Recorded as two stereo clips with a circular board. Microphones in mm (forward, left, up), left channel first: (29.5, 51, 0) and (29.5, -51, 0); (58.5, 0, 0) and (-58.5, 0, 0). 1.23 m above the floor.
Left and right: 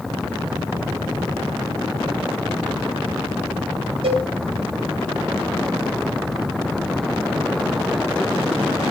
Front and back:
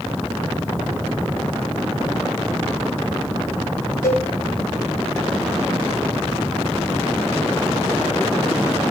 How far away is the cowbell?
About 1.6 m.